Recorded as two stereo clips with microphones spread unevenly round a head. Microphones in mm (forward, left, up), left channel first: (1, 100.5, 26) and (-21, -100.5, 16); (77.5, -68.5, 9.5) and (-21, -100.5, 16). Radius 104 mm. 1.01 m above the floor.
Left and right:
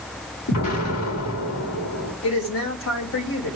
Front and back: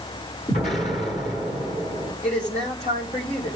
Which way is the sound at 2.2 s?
55° left.